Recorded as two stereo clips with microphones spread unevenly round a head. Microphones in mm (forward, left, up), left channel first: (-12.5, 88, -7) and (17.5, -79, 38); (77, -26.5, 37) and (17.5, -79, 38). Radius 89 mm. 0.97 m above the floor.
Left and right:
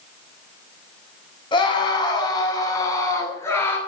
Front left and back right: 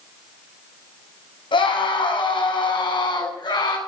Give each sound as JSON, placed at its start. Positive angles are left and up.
{"t": 1.5, "sound": "a scream", "azimuth_deg": 35, "distance_m": 7.5}